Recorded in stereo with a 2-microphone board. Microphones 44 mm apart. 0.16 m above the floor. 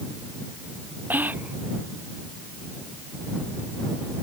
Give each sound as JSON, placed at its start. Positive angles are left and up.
{"t": 1.1, "sound": "whispering", "side_deg": -45}